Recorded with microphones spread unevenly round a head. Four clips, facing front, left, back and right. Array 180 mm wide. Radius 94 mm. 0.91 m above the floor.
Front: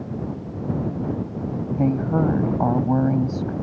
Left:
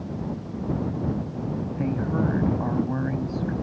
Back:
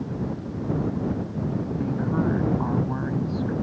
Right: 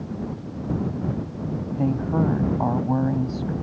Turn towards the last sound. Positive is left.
turn(degrees=-20)